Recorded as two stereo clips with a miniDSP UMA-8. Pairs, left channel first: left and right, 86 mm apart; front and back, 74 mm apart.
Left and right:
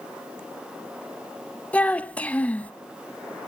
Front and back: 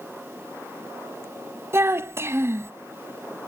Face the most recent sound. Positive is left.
turn(degrees=155)